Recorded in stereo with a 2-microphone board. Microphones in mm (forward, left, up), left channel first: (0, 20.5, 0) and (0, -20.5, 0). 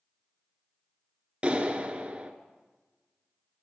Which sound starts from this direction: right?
A clap, at 1.4 s.